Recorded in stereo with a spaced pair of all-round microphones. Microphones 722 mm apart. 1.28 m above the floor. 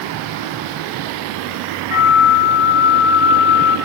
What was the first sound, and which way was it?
A flute, 45° left (ahead or behind).